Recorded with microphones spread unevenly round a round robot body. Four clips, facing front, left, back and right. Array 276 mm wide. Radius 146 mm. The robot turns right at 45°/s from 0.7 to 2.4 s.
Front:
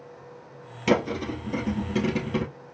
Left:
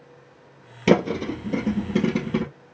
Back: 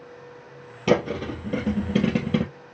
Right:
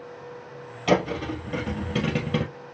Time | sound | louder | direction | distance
0.9 | a thud | left 3 dB, back 2 dB | 105° left | 2.5 m